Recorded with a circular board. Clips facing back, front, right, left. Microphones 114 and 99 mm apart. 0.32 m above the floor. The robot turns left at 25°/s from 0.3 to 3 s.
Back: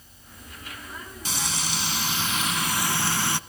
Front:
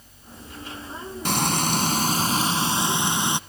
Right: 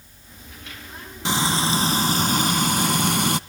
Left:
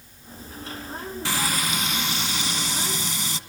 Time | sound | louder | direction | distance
1.2 | frying | front 10 dB, right 6 dB | 25° right | 0.5 m